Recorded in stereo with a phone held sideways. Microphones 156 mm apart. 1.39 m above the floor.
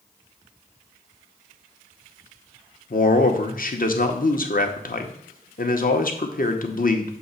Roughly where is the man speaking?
Left.